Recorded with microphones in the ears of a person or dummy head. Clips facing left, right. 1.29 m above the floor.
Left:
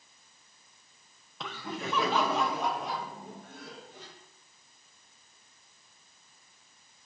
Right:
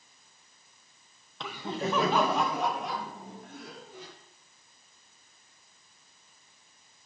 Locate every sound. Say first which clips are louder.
1.4 s laughter: right 4 dB; centre (ahead or behind), 0.6 m; by 4.1 s 60° right (ahead or behind), 3.5 m